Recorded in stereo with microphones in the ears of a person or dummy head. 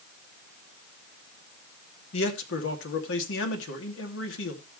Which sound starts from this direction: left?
A man speaking, at 2.1 s.